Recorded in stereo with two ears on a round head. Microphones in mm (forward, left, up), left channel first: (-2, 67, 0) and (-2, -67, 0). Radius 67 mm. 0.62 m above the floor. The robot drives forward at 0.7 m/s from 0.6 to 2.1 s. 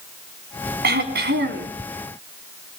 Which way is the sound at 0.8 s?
80° right.